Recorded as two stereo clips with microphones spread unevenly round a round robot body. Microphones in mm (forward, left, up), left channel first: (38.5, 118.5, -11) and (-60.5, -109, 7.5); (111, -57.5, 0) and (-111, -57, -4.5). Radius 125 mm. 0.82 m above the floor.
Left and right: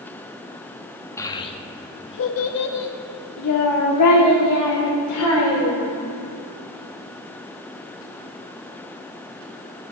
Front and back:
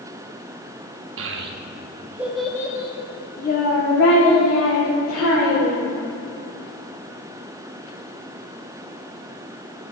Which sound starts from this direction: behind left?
A child speaking, at 1.2 s.